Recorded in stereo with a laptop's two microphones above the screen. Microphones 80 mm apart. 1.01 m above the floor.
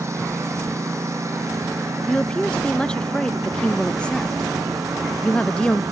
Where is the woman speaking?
15° left (ahead or behind).